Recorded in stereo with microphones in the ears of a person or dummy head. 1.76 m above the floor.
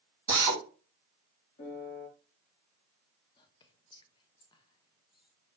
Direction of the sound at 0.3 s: 10° right (ahead or behind).